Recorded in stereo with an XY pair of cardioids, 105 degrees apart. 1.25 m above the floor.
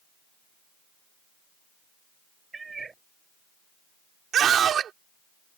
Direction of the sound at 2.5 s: 30° right.